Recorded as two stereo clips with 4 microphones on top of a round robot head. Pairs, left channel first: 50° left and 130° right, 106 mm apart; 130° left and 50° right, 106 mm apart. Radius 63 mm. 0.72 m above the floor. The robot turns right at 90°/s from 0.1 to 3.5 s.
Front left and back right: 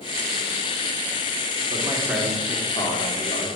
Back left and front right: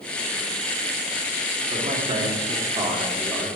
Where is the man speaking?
95° right, 1.7 m; by 3.5 s 65° left, 1.7 m.